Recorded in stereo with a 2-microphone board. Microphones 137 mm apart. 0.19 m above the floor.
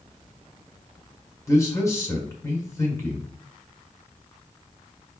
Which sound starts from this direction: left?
A man speaking, at 1.5 s.